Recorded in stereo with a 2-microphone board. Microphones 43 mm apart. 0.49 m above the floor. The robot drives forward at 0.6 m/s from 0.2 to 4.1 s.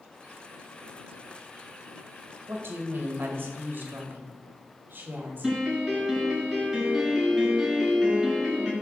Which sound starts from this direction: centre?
A piano, at 5.4 s.